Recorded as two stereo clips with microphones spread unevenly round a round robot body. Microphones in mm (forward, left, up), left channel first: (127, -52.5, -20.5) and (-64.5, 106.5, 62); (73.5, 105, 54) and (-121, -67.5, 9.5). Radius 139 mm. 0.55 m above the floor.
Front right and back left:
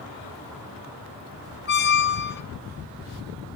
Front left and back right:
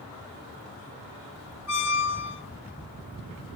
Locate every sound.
1.7 s a squeak: 10° left, 1.8 m